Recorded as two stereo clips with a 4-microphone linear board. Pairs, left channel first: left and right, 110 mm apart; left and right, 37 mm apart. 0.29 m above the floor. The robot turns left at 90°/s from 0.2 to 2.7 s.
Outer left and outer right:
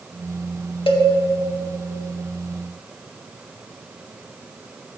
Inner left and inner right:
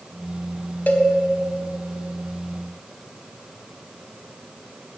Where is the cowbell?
60° left (ahead or behind), 0.5 m; by 1.1 s 65° left (ahead or behind), 0.5 m.